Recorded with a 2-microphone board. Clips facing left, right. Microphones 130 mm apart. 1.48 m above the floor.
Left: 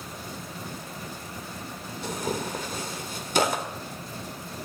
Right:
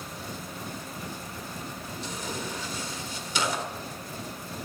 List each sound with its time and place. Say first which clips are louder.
2.0 s tearing paper: left 6 dB; 55° left (ahead or behind), 1.8 m